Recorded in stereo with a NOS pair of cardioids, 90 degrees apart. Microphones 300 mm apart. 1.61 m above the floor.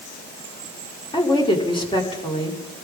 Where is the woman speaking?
15° left, 5.5 m.